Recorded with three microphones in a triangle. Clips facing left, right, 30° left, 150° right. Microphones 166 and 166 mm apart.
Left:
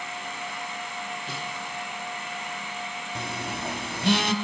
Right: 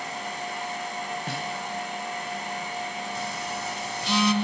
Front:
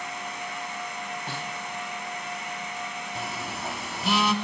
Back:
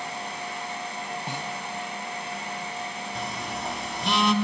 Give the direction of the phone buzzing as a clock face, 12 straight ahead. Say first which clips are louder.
Right 1 dB, back 1 dB; 8 o'clock.